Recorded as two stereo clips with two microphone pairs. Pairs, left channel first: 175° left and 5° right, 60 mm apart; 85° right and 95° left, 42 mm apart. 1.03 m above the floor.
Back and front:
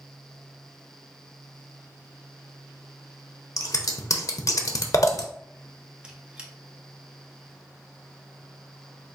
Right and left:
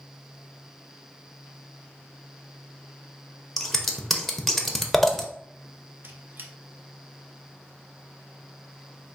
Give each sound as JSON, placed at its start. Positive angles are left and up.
{"t": 3.6, "sound": "scissors", "azimuth_deg": -165, "distance_m": 0.6}
{"t": 6.0, "sound": "a squeak", "azimuth_deg": 65, "distance_m": 0.7}